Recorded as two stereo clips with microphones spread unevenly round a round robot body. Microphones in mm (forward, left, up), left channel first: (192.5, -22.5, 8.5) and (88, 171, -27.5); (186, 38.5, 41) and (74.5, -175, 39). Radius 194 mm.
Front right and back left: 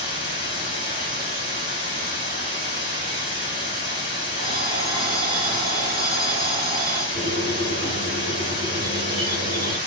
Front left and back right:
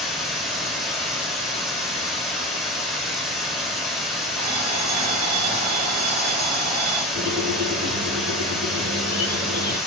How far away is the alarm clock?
About 1.4 m.